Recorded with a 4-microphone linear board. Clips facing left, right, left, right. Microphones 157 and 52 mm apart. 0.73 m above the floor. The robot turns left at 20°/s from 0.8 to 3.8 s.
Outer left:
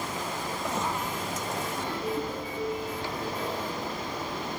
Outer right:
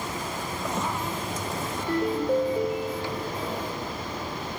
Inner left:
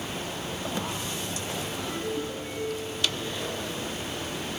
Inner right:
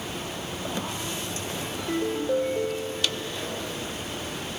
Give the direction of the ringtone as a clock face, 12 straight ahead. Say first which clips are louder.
Outer right 8 dB, inner right 6 dB; 2 o'clock.